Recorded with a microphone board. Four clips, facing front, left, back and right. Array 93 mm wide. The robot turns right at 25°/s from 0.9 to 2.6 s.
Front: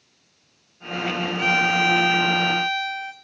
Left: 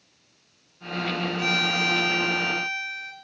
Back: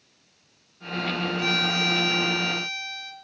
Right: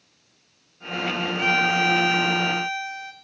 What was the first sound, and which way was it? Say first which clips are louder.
A violin: right 5 dB, front 6 dB; 40° right.